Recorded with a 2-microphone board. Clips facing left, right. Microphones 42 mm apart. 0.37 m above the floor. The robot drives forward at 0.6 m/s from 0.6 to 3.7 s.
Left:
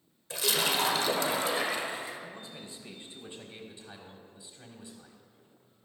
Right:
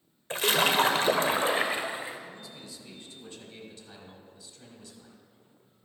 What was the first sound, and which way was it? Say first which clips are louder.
A splash: right 5 dB; 40° right (ahead or behind).